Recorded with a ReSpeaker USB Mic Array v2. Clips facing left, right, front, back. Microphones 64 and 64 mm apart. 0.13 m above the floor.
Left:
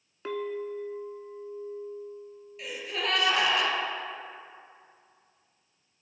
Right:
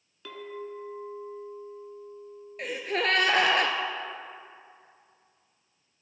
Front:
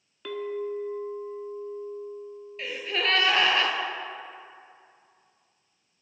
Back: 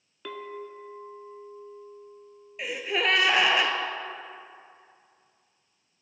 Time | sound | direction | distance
0.2 | a clink | 95° left | 0.7 m
2.6 | a gasp | 110° right | 0.9 m